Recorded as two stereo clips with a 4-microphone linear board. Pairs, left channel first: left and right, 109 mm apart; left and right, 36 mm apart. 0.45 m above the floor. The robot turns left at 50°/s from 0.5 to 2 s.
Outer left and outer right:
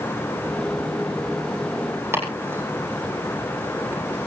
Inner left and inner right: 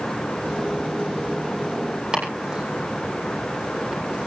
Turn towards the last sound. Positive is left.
turn(degrees=-20)  # may be behind; listen again after turning